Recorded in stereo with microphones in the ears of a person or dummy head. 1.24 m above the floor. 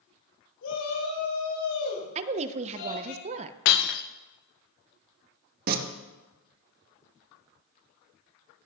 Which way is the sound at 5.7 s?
45° right (ahead or behind).